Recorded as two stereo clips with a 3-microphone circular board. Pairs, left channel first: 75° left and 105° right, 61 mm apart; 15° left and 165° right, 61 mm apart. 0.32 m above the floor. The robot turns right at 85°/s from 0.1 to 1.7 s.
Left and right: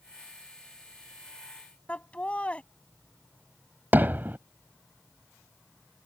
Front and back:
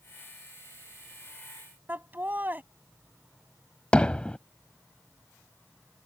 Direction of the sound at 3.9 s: 55° right.